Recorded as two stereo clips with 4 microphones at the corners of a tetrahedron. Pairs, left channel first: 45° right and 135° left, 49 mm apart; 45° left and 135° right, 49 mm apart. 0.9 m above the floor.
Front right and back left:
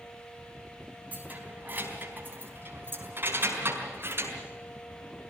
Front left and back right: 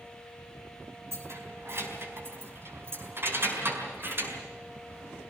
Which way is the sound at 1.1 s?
170° right.